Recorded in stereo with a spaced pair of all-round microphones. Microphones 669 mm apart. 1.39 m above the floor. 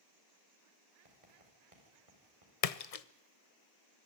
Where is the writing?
55° right (ahead or behind), 5 m.